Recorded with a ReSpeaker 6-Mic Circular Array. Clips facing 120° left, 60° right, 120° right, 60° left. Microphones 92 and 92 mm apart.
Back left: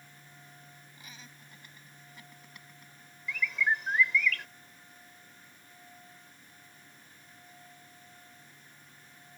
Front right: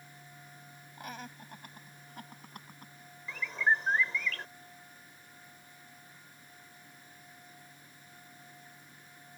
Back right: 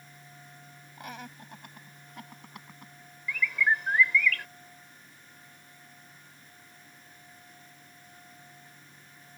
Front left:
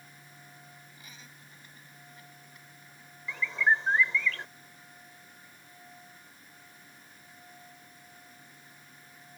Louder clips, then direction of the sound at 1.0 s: Front right 12 dB, back right 11 dB; 90° right.